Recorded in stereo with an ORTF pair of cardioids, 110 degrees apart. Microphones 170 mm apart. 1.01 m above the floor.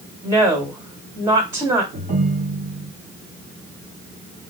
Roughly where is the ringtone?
Ahead right.